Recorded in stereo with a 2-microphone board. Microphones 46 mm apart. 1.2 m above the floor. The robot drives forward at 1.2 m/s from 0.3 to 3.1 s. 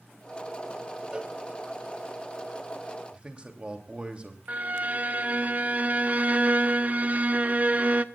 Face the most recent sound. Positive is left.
turn(degrees=-35)  # may be behind; listen again after turning